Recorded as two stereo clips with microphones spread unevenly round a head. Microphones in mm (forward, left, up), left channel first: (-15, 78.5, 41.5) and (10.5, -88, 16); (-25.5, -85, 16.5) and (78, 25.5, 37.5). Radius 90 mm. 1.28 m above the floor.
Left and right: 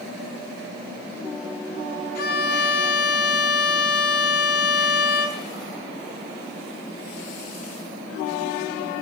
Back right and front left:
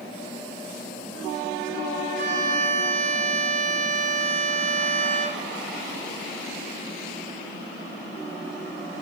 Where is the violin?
85° left, 0.8 m.